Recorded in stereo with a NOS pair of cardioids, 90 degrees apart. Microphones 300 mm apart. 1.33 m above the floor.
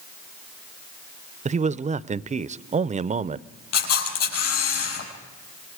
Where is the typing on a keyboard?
No typing on a keyboard in this recording.